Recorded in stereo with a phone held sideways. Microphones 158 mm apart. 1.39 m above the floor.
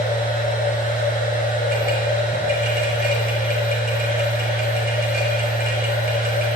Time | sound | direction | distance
0.0 | a machine running | 70° left (ahead or behind) | 5 m